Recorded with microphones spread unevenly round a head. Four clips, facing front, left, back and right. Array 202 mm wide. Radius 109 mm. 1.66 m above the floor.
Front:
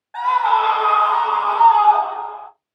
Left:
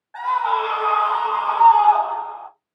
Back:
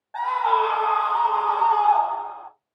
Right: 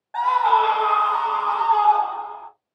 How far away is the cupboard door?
I don't hear a cupboard door.